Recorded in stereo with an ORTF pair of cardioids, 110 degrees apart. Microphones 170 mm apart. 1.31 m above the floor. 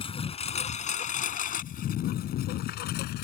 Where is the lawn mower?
35° left; by 3.2 s 80° left.